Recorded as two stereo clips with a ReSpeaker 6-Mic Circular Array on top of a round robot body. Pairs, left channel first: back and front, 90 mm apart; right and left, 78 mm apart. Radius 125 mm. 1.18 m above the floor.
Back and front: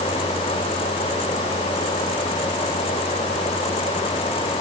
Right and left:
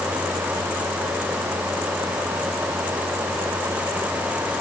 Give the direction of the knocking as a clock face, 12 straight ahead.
No knocking in this recording.